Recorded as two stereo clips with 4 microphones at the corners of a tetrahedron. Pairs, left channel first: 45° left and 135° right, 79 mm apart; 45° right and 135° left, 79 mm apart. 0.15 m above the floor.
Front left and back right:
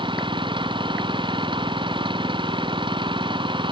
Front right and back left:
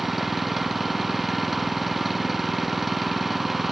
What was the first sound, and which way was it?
An engine running, 135° right.